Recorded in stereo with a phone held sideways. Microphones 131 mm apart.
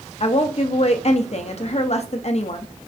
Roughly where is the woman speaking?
Left.